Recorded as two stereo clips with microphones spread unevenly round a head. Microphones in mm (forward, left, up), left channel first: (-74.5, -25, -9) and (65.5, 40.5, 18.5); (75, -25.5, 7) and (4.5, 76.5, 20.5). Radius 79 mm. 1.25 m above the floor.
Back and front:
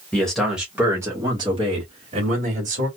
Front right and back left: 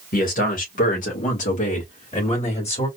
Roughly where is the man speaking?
Right.